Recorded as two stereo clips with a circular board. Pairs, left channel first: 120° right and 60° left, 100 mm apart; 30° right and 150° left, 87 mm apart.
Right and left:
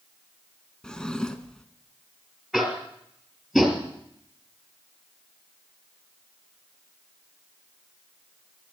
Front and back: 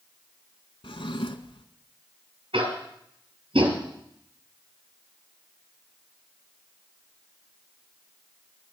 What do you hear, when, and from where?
0.8 s a drawer: 40° right, 0.8 m
2.5 s tapping: 145° left, 2.5 m